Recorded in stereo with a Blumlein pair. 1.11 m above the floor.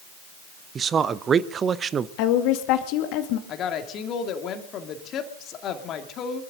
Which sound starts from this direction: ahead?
A man speaking, at 0.8 s.